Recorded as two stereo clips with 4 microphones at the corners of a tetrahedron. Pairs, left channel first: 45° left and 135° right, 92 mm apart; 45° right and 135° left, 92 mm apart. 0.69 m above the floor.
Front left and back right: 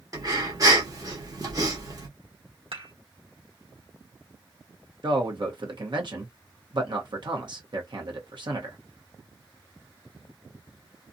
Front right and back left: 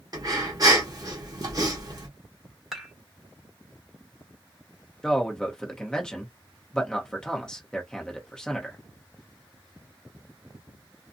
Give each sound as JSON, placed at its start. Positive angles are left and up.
{"t": 0.1, "sound": "breathing", "azimuth_deg": 180, "distance_m": 1.1}
{"t": 2.7, "sound": "dishes clattering", "azimuth_deg": -135, "distance_m": 1.3}
{"t": 5.0, "sound": "a man speaking", "azimuth_deg": -125, "distance_m": 1.0}